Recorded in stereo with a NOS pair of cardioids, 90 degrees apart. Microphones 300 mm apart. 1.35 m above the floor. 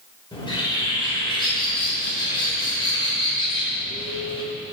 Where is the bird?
15° left, 5.5 m.